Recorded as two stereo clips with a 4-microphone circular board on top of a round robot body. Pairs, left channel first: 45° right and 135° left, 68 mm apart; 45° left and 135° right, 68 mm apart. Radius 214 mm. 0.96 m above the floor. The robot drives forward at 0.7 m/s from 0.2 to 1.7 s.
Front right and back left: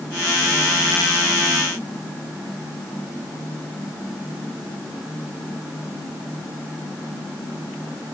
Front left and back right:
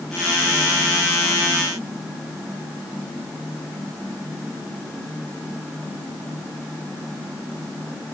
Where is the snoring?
No snoring in this recording.